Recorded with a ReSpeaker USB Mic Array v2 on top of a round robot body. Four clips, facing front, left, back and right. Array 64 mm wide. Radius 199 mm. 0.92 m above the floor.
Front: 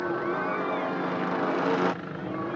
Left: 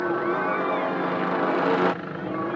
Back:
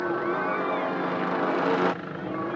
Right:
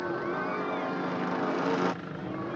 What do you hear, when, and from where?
0.0 s a helicopter: 105° left